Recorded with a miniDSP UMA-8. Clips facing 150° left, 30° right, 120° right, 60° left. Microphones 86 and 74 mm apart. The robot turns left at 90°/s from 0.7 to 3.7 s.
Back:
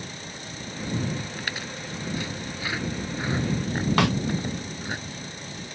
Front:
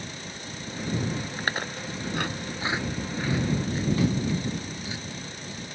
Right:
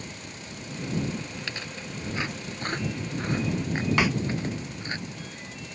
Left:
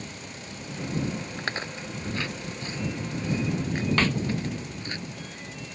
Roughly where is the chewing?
Ahead left.